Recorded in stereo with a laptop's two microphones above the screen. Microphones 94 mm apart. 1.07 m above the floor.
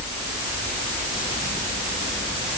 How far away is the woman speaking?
No woman speaking in this recording.